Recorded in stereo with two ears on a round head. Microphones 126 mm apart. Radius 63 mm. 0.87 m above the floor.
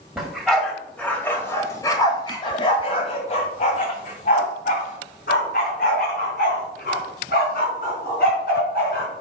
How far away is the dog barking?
About 1.8 m.